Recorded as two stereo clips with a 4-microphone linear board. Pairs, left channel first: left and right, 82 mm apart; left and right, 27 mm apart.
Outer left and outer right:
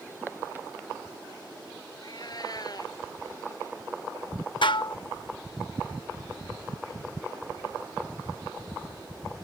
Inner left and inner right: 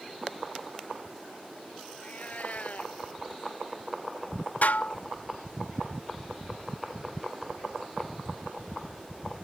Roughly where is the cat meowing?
Left.